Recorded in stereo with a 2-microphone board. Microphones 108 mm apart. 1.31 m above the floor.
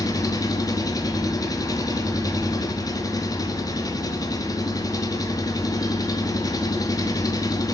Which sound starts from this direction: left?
An engine running, at 0.0 s.